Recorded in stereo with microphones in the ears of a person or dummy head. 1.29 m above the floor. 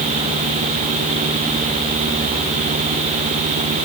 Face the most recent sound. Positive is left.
No sound to turn to.